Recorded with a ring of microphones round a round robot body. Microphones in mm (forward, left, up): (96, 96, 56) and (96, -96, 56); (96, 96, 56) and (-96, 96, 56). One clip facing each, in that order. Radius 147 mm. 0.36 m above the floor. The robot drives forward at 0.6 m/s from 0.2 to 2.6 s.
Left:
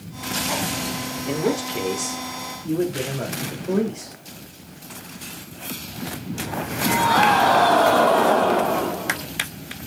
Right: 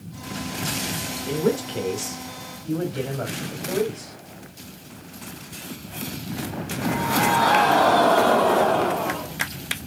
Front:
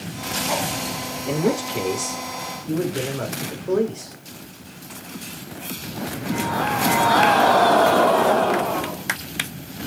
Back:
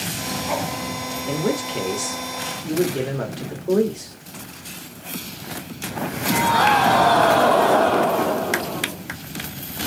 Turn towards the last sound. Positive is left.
turn(degrees=140)